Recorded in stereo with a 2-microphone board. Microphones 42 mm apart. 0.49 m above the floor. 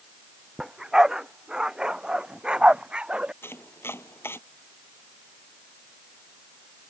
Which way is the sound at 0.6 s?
10° right (ahead or behind).